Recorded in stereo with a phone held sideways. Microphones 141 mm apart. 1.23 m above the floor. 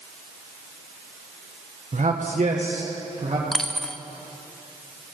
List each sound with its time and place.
1.9 s a man speaking: 60° right (ahead or behind), 1.0 m; by 3.4 s 50° right (ahead or behind), 1.5 m
3.5 s a dropped coin: 5° left (ahead or behind), 0.6 m